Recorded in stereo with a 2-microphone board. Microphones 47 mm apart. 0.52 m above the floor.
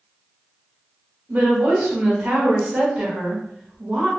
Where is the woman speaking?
30° right (ahead or behind), 1.5 m.